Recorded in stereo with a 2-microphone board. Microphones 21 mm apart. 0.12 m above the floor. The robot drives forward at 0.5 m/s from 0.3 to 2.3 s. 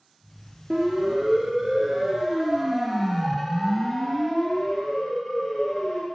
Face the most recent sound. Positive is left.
turn(degrees=20)  # may be behind; listen again after turning